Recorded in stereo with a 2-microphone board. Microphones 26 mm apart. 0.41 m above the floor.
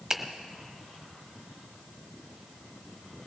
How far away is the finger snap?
About 1.1 m.